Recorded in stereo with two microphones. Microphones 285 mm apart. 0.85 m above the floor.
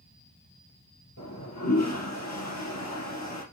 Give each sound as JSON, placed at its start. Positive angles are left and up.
{"t": 1.2, "sound": "a toilet flushing", "side_deg": 75, "distance_m": 3.5}